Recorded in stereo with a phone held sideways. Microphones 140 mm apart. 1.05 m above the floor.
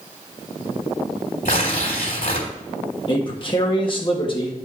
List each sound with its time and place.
1.4 s tearing paper: 75° left (ahead or behind), 2.5 m
3.1 s a man speaking: 35° left (ahead or behind), 1.7 m